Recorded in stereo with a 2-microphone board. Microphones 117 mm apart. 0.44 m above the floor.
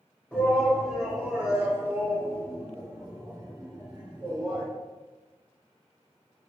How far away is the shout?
About 1.7 m.